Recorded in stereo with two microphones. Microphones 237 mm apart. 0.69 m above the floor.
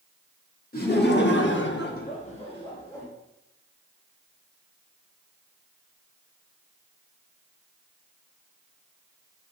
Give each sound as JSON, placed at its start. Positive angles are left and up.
{"t": 0.7, "sound": "laughter", "side_deg": 40, "distance_m": 1.6}